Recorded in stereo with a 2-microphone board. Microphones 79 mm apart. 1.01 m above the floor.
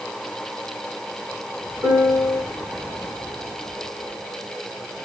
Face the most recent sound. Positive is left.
turn(degrees=-45)  # may be behind; listen again after turning